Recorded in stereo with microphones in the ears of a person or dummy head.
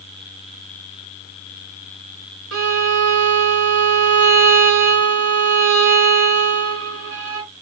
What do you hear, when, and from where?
2.5 s a violin: 75° right (ahead or behind), 0.8 m